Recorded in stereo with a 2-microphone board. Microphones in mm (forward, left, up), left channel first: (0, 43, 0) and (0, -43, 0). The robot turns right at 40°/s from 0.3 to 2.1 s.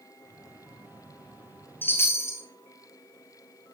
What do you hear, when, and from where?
1.8 s a chime: 20° left (ahead or behind), 1.9 m; by 2.4 s 30° left (ahead or behind), 1.9 m